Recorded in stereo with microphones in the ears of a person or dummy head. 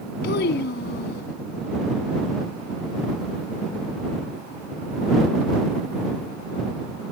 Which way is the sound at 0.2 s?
60° left (ahead or behind).